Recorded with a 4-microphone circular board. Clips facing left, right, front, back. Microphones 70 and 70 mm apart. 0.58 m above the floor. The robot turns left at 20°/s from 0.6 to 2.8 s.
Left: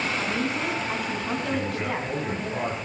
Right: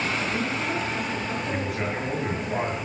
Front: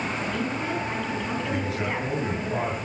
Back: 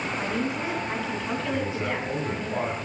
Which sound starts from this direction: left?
A woman speaking, at 0.2 s.